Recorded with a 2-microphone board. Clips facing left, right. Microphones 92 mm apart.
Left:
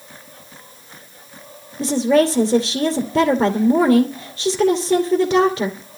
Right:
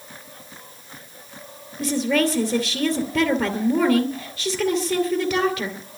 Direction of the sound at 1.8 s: 20° left (ahead or behind).